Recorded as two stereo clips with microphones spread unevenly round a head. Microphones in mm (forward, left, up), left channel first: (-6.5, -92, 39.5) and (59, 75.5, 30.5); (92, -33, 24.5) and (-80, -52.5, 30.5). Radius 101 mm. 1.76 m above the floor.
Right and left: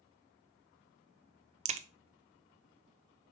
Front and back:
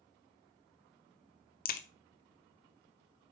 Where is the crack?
30° left, 0.6 m.